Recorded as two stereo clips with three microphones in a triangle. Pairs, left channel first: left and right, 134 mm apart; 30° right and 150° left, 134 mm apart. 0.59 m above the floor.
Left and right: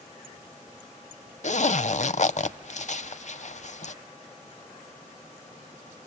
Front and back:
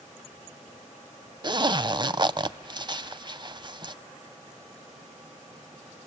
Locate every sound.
1.4 s a zipper: 100° left, 0.7 m